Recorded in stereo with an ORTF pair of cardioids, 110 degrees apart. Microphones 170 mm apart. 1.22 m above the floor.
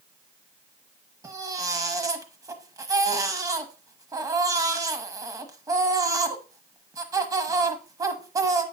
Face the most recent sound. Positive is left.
turn(degrees=-20)